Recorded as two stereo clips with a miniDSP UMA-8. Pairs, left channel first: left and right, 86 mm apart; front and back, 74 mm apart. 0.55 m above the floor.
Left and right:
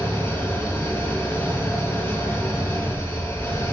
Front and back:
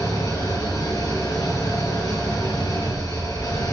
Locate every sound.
0.0 s an engine running: 30° left, 6 m